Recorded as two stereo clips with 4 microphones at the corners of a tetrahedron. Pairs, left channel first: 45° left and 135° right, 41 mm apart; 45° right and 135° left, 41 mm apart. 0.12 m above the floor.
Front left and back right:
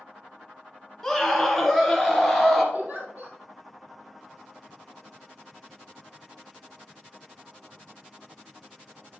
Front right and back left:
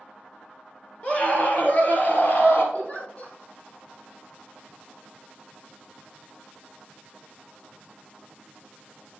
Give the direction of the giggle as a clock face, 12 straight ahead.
3 o'clock.